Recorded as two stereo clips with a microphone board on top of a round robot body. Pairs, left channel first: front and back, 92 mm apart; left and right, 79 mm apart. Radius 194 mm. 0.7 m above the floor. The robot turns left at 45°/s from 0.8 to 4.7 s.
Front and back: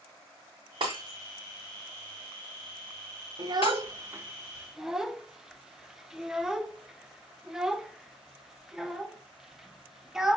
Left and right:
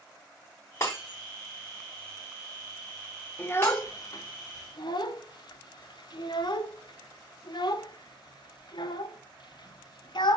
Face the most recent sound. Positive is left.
turn(degrees=95)